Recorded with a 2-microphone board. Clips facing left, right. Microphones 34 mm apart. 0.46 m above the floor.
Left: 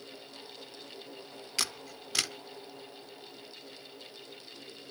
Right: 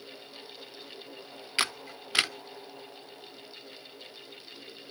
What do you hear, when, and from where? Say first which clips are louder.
1.6 s a camera shutter: right 5 dB; 35° right (ahead or behind), 0.5 m